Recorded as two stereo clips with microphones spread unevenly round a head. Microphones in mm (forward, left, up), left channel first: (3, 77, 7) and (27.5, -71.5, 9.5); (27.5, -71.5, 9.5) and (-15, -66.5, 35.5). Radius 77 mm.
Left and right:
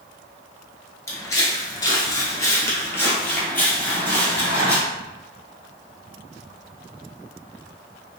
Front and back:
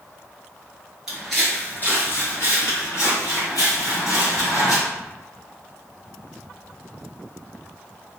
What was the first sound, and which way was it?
Footsteps, 165° left.